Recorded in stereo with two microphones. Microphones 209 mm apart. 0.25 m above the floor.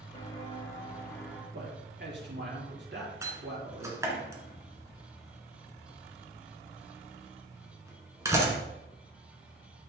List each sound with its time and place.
0.1 s footsteps: 25° left (ahead or behind), 2.5 m; by 1.4 s 5° left (ahead or behind), 3 m
1.5 s a man speaking: 55° right (ahead or behind), 4 m
3.2 s a door slam: 15° right (ahead or behind), 2.0 m